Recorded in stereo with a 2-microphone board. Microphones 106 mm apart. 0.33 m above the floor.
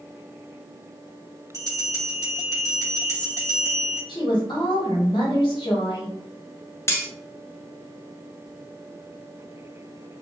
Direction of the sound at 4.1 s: 50° left (ahead or behind).